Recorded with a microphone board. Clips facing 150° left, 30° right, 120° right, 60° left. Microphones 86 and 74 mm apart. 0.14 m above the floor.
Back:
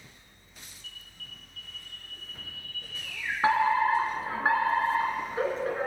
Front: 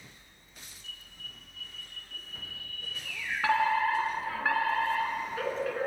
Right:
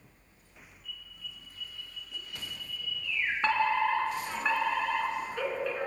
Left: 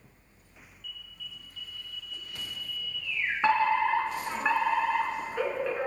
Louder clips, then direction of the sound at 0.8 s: Front 1 dB, left 1 dB; 175° right.